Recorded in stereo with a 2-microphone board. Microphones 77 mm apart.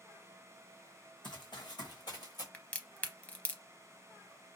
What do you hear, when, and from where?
1.2 s running footsteps: 80° left, 1.2 m; by 2.4 s 60° left (ahead or behind), 1.7 m
2.5 s a crack: 20° left (ahead or behind), 0.5 m